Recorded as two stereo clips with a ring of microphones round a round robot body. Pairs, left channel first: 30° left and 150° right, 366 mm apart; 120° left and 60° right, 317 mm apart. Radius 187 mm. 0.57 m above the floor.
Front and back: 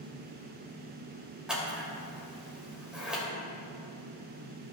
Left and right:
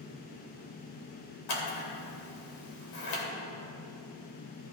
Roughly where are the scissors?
Behind left.